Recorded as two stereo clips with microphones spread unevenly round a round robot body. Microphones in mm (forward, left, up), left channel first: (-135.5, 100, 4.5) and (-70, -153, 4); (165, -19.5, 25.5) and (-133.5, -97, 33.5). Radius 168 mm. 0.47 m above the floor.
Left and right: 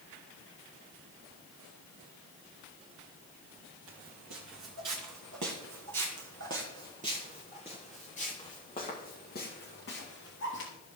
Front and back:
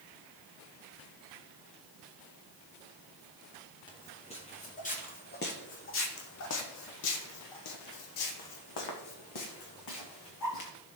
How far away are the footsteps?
About 2 m.